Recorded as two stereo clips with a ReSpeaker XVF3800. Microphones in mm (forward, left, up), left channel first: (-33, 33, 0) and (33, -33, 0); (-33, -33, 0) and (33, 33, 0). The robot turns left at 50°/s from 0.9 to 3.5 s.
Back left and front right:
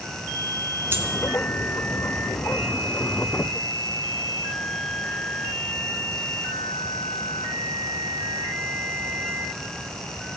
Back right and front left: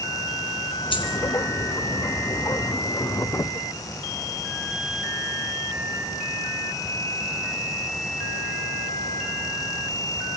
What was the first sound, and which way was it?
A dropped coin, 110° right.